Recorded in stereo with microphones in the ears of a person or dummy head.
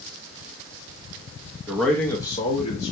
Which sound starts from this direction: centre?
A man speaking, at 1.7 s.